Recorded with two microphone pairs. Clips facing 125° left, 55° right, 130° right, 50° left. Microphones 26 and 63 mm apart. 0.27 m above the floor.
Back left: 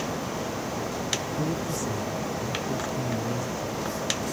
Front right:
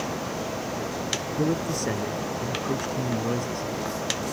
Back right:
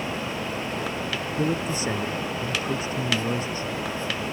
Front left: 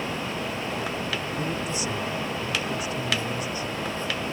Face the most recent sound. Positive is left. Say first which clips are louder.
# front right 3 dB, back right 3 dB
turn(degrees=-75)